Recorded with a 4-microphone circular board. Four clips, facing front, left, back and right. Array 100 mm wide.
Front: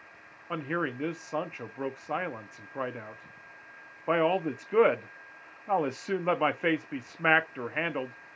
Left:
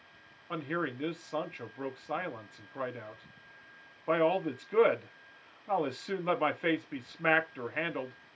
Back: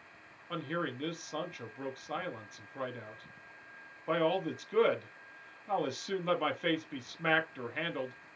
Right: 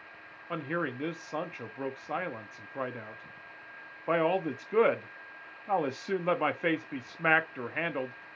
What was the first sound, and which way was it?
A man speaking, 15° right.